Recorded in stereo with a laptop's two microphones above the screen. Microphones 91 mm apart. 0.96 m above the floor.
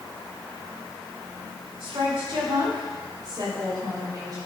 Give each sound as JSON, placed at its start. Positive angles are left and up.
{"t": 1.8, "sound": "a woman speaking", "side_deg": -65, "distance_m": 4.5}